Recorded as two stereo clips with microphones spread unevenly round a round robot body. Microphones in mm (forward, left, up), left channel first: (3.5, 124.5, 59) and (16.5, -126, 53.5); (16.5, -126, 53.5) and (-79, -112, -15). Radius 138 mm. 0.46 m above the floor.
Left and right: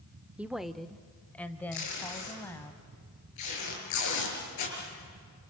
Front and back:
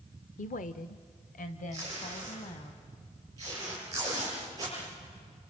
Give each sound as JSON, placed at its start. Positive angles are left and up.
{"t": 0.4, "sound": "a woman speaking", "azimuth_deg": -5, "distance_m": 0.9}
{"t": 1.7, "sound": "tape being pulled", "azimuth_deg": 110, "distance_m": 7.0}